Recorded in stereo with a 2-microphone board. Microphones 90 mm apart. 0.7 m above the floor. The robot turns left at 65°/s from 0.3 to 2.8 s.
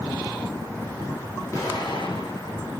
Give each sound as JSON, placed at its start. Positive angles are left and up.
{"t": 1.5, "sound": "an explosion", "azimuth_deg": 150, "distance_m": 3.5}